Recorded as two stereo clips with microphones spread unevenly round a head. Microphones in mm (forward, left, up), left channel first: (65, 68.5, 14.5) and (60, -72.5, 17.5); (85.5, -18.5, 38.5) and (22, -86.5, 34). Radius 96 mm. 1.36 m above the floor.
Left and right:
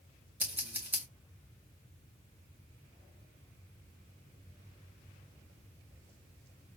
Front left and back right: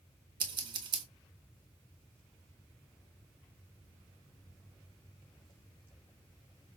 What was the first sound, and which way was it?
Scissors, 170° right.